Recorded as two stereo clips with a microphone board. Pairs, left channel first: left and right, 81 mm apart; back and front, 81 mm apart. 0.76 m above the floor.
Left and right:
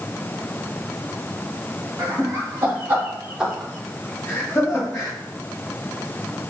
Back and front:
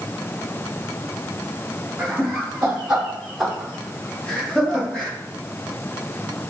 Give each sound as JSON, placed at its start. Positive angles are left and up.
{"t": 2.0, "sound": "laughter", "azimuth_deg": -70, "distance_m": 1.2}